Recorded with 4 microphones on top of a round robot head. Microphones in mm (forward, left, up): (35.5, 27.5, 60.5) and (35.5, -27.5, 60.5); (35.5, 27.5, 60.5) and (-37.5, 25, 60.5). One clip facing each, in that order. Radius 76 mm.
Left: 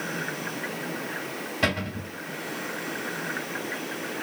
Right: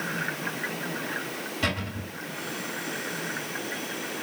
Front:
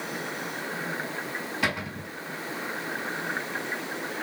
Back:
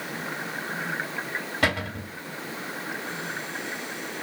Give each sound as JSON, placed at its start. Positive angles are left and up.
{"t": 1.6, "sound": "a cupboard door", "azimuth_deg": 145, "distance_m": 2.5}